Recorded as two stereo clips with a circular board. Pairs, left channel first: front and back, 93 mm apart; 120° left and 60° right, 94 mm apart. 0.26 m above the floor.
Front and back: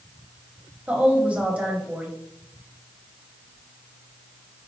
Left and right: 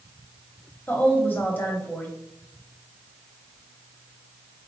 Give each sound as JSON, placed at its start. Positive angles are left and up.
{"t": 0.9, "sound": "a woman speaking", "azimuth_deg": 130, "distance_m": 0.9}